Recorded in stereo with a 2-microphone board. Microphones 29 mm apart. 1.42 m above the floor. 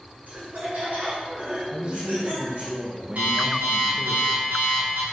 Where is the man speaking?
30° right (ahead or behind), 0.7 m.